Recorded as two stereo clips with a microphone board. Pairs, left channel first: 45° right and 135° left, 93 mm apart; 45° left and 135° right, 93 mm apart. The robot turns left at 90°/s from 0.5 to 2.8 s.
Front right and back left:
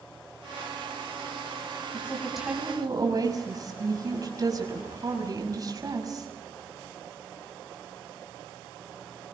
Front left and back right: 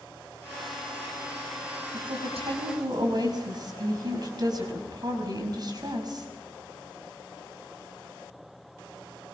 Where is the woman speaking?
95° right, 6 m; by 6.3 s 175° right, 6 m.